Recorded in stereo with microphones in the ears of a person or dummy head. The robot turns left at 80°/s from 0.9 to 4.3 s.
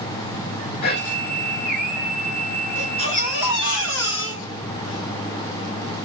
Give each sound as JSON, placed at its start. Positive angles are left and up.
{"t": 0.8, "sound": "whispering", "side_deg": 60, "distance_m": 0.9}
{"t": 2.8, "sound": "a baby crying", "azimuth_deg": 170, "distance_m": 3.0}